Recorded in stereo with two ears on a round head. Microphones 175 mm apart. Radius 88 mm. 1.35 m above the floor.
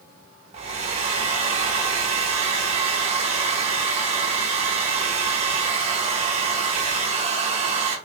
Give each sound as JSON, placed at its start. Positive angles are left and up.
{"t": 0.5, "sound": "a hair dryer", "side_deg": -30, "distance_m": 0.7}